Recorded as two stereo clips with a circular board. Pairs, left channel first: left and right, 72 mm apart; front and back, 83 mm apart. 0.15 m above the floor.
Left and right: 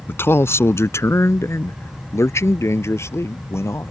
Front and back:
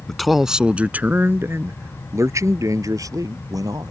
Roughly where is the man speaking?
Left.